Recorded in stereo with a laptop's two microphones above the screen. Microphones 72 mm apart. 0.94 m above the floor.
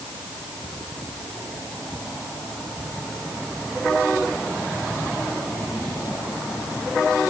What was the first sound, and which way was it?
Only background noise.